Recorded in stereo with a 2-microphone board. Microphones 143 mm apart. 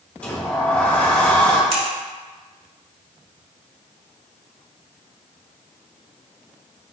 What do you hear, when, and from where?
0.2 s a sliding door: 10° left (ahead or behind), 2 m
1.7 s scissors: 45° right (ahead or behind), 1.9 m